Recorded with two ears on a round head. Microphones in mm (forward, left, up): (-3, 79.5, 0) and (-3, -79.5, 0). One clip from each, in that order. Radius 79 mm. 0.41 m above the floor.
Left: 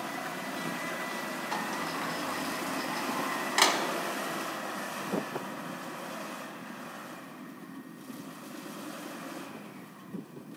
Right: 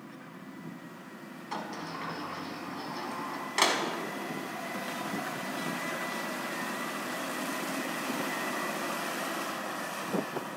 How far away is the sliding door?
About 1.1 m.